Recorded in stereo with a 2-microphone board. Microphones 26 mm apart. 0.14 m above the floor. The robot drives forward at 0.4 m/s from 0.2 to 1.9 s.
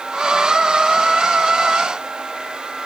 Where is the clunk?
No clunk in this recording.